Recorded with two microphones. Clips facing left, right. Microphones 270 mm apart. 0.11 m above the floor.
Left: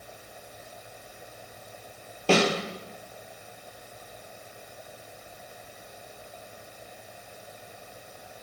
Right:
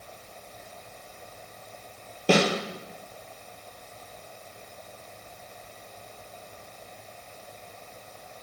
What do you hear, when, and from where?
2.3 s a snare drum: 15° right (ahead or behind), 2 m